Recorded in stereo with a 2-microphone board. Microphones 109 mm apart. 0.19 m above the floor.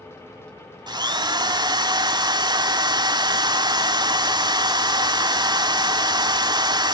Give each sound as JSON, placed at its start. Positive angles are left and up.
{"t": 0.9, "sound": "a drill", "side_deg": -40, "distance_m": 0.6}